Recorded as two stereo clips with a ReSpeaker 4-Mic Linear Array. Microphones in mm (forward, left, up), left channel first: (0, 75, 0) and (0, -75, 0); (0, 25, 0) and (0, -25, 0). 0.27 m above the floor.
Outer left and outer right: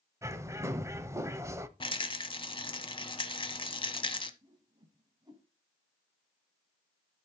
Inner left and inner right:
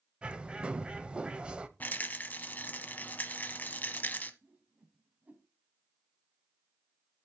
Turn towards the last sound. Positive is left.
turn(degrees=-30)  # may be behind; listen again after turning